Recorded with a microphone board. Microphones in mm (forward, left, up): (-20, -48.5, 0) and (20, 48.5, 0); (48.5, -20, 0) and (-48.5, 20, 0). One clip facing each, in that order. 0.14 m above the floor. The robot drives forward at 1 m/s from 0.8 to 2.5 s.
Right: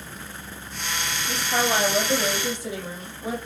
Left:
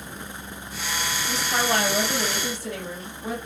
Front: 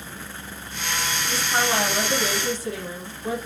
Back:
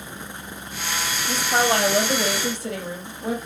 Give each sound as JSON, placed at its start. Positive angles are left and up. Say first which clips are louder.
{"t": 1.3, "sound": "a woman speaking", "louder": "right 1 dB, back 4 dB", "azimuth_deg": 170, "distance_m": 3.5}